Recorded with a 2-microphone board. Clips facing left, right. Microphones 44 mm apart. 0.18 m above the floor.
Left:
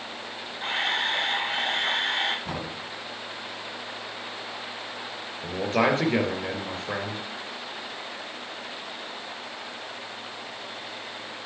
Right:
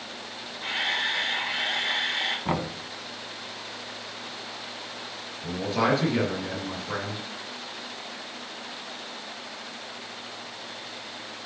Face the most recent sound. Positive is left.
turn(degrees=40)  # may be behind; listen again after turning